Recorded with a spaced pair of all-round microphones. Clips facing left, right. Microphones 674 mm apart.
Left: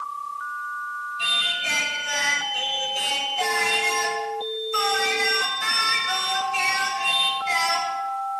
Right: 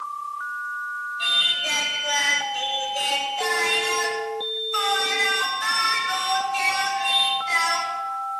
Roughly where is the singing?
Left.